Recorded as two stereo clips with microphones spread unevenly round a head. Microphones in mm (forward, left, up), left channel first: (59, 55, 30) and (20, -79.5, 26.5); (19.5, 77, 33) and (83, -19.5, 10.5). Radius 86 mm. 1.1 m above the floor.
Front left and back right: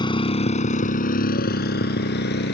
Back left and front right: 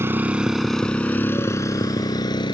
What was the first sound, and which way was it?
A motorcycle, 15° left.